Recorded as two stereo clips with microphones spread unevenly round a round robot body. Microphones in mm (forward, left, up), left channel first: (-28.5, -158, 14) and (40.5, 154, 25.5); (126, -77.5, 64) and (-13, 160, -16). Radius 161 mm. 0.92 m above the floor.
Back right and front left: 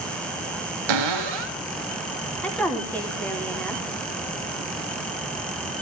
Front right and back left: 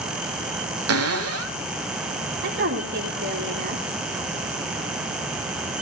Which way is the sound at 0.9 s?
80° left.